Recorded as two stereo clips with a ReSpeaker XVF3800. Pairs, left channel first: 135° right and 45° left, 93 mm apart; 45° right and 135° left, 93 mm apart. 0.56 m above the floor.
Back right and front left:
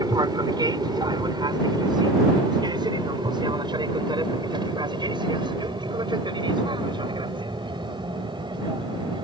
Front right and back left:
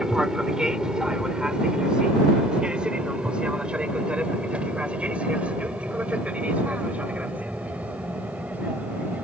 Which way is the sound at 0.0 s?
55° left.